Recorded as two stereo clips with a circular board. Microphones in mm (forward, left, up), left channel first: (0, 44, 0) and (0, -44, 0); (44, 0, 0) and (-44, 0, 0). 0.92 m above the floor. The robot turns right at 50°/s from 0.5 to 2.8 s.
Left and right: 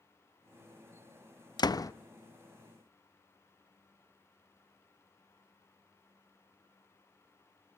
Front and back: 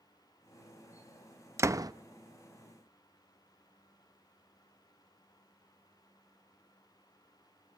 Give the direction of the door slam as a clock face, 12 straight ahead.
8 o'clock.